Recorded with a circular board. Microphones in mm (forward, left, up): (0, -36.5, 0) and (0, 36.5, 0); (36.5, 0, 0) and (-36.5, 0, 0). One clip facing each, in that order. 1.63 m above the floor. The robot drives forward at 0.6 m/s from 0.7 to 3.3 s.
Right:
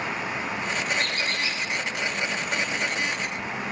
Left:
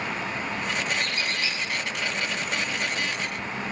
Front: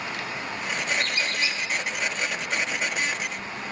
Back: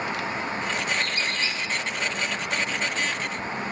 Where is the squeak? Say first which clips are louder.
Right 1 dB, even; 125° right, 3.5 m; by 1.6 s 130° right, 3.5 m.